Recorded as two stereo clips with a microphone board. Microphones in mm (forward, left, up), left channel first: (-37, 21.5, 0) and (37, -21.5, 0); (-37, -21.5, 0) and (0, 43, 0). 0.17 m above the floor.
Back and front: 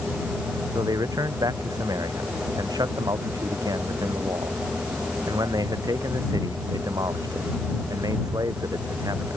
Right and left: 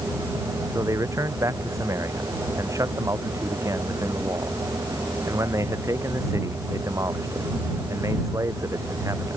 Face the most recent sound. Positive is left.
turn(degrees=15)